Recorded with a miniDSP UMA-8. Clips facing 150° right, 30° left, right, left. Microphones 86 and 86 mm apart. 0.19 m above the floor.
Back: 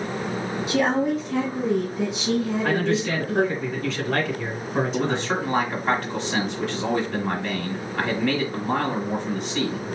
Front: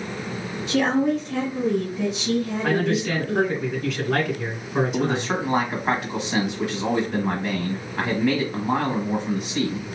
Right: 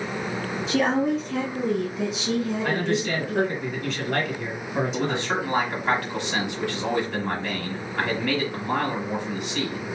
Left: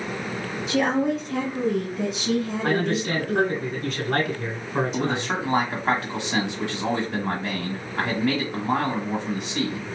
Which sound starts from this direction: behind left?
A woman speaking, at 0.7 s.